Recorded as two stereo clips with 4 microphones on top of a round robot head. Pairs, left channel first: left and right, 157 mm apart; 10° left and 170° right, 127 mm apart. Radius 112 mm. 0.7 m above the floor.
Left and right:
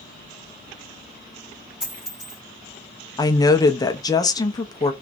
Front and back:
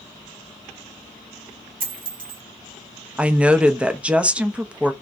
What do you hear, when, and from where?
1.8 s a dropped coin: 175° right, 1.4 m
3.2 s a woman speaking: 120° left, 0.6 m